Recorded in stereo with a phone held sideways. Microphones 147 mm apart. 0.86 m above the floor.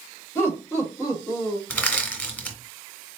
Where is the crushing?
10° left (ahead or behind), 0.9 m.